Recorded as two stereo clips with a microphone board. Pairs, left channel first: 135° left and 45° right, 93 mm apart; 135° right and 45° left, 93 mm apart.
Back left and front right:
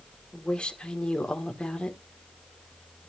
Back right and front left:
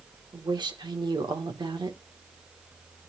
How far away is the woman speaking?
About 1.5 m.